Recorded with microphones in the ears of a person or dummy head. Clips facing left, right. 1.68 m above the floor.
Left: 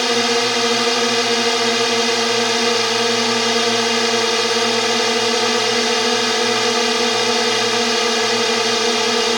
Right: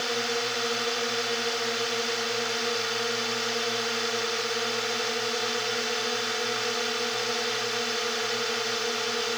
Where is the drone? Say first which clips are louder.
Left 12 dB; 85° left.